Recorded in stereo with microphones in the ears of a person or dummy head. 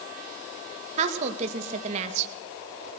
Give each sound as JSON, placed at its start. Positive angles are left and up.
{"t": 1.0, "sound": "a woman speaking", "side_deg": -40, "distance_m": 2.0}